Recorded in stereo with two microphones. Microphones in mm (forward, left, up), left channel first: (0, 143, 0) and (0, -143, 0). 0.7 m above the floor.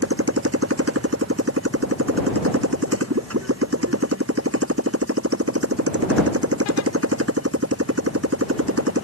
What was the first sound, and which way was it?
A motorcycle, 55° right (ahead or behind).